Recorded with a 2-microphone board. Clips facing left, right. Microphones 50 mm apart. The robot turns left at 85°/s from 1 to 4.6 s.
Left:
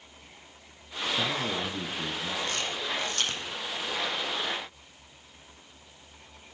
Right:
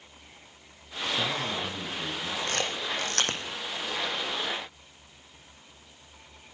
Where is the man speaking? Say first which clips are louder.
Left 1 dB; 155° left, 2.5 m; by 2.4 s 50° left, 2.5 m.